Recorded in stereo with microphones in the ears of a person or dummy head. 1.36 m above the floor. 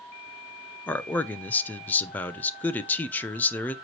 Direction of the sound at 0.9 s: 15° left (ahead or behind).